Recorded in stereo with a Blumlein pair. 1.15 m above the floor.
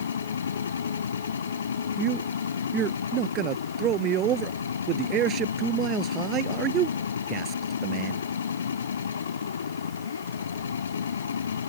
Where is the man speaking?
30° right.